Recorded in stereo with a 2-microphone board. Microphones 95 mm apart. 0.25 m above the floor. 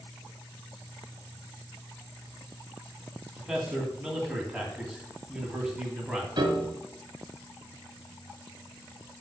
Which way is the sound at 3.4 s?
5° right (ahead or behind).